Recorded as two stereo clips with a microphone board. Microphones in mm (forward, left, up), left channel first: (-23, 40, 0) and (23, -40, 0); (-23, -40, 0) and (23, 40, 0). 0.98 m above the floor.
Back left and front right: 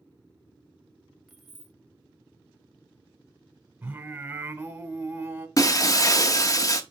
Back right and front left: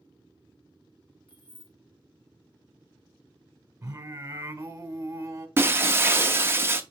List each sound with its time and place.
1.3 s keys jangling: 150° right, 0.6 m
3.8 s singing: 5° left, 1.1 m
5.6 s breaking glass: 110° left, 0.5 m